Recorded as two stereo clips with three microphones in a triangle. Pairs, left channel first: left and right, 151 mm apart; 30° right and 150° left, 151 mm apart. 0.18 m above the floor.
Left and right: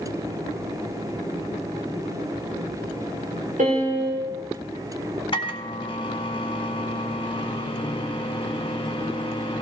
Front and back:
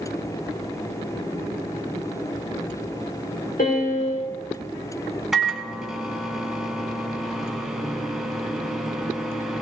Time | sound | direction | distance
3.6 | a piano | 55° right | 5.5 m
5.3 | a microwave | 65° left | 1.2 m